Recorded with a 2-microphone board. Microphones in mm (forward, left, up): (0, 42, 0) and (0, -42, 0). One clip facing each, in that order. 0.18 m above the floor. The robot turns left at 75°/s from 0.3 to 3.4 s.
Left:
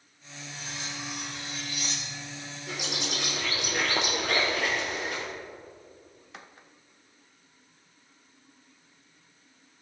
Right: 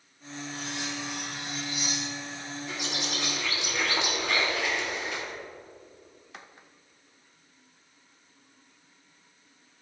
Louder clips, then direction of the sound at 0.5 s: Right 3 dB; 65° right.